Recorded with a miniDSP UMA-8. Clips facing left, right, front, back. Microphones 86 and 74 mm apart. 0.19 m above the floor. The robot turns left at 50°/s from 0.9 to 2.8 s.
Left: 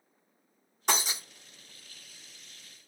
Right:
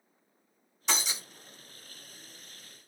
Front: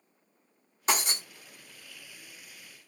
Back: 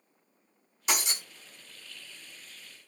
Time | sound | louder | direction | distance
0.9 | breaking glass | left 3 dB, front 3 dB | 50° left | 1.9 m